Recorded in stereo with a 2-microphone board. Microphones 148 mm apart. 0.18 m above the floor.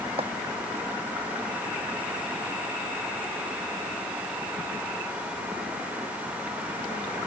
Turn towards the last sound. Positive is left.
turn(degrees=-40)  # may be behind; listen again after turning